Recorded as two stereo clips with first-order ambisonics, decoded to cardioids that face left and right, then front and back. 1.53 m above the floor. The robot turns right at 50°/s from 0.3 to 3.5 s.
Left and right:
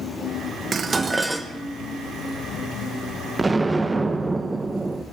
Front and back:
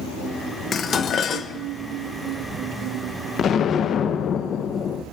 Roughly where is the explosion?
Ahead.